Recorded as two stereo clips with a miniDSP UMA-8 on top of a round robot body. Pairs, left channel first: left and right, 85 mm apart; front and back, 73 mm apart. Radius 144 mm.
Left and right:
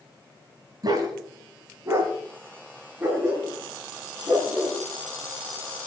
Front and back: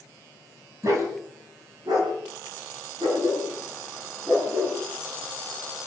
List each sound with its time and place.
0.8 s a dog barking: 135° right, 2.5 m; by 4.8 s 170° right, 7 m